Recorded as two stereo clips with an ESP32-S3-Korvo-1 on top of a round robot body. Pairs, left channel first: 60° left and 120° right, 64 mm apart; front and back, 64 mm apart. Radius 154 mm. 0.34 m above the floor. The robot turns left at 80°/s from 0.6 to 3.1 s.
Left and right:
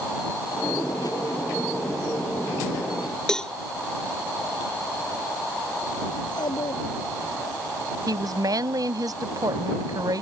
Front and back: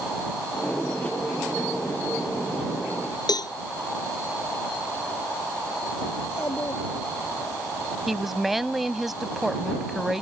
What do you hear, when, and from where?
3.3 s a cowbell: 20° right
6.2 s a child speaking: 55° left
8.1 s a woman speaking: 95° right